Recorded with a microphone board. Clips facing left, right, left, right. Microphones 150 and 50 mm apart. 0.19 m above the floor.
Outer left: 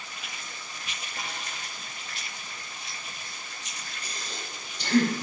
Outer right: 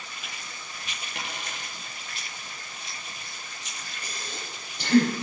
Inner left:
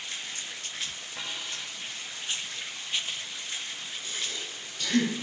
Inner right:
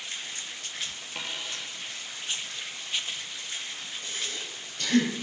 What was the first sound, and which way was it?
A dropped coin, 80° right.